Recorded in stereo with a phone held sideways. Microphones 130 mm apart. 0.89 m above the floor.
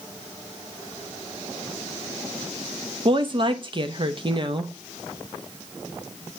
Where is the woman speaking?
40° right (ahead or behind), 0.7 m.